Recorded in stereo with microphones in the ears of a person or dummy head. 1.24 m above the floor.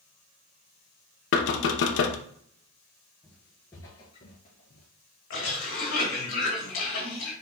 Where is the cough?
60° left (ahead or behind), 2 m.